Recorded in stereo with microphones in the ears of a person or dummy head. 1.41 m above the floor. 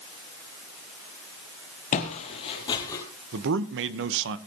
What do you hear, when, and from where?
1.9 s footsteps: 45° left (ahead or behind), 2.5 m; by 3.0 s 15° left (ahead or behind), 2.5 m
3.3 s a man speaking: 70° right (ahead or behind), 1.2 m